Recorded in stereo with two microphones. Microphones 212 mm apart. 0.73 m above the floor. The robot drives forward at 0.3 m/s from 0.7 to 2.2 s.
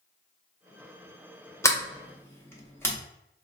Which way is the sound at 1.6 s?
15° left (ahead or behind).